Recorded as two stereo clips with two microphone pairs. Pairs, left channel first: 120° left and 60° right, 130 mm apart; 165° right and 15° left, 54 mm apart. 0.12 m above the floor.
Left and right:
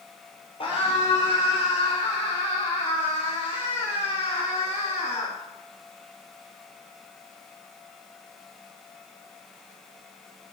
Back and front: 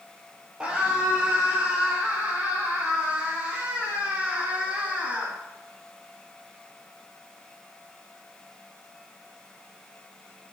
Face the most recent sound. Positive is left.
turn(degrees=85)